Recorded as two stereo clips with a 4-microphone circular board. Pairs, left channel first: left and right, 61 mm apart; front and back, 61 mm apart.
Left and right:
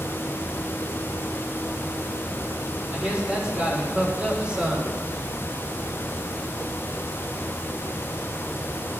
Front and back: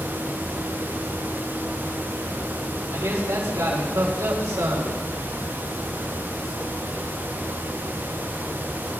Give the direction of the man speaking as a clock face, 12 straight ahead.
5 o'clock.